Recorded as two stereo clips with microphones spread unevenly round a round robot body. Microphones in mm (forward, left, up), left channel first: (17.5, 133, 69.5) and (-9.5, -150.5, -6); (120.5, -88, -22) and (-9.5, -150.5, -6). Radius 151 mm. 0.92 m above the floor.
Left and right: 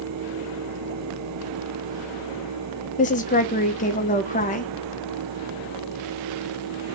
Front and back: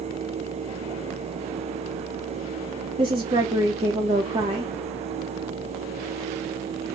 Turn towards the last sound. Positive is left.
turn(degrees=155)